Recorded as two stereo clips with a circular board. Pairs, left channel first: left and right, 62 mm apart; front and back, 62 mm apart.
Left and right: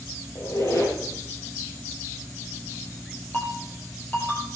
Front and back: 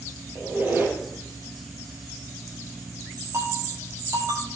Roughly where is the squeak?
Behind left.